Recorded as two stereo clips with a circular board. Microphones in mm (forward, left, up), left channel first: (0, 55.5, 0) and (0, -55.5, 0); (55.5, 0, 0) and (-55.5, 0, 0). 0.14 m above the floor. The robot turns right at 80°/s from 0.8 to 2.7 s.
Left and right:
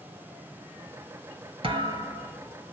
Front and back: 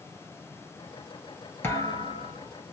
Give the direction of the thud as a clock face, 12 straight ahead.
2 o'clock.